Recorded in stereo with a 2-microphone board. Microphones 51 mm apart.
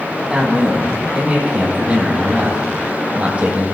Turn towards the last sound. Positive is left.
turn(degrees=-25)  # may be behind; listen again after turning